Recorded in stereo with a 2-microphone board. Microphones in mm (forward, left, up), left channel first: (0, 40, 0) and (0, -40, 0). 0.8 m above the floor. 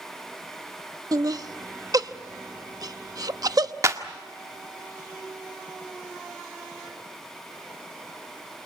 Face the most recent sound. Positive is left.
turn(degrees=-40)  # may be behind; listen again after turning